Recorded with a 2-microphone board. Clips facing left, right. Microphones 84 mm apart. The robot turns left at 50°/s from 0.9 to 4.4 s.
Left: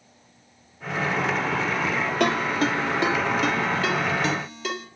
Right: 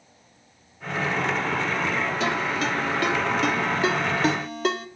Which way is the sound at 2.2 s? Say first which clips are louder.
Left 3 dB; 60° left (ahead or behind).